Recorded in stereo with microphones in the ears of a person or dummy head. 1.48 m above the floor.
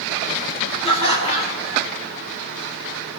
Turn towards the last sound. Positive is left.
turn(degrees=25)  # may be behind; listen again after turning